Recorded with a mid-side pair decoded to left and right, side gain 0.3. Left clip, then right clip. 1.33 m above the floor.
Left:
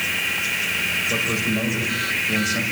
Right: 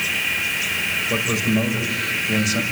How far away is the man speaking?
About 6.5 m.